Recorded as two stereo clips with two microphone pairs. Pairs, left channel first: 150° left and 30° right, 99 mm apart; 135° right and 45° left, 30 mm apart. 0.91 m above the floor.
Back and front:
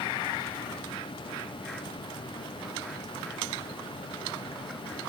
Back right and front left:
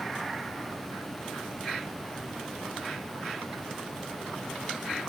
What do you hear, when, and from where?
Only background noise.